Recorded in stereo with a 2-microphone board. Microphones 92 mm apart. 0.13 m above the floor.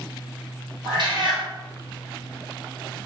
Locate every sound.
0.8 s a cat meowing: 60° right (ahead or behind), 1.5 m